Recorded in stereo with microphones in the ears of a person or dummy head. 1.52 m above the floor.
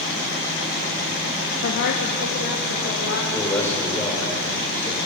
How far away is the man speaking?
About 4.5 m.